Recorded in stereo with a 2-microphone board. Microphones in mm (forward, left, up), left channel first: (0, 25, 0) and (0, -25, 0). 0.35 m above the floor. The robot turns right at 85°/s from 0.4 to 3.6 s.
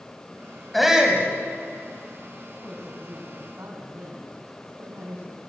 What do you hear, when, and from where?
0.7 s a shout: 175° left, 2.5 m; by 1.2 s 140° right, 2.5 m
2.5 s a woman speaking: 155° left, 3.5 m; by 5.4 s 105° right, 3.5 m